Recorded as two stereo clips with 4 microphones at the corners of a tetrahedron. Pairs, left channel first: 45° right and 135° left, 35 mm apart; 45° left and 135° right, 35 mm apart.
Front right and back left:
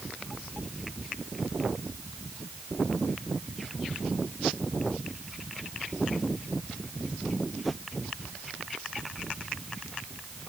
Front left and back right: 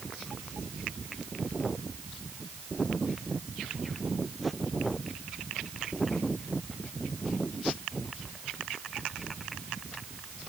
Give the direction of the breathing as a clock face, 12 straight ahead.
I don't hear breathing.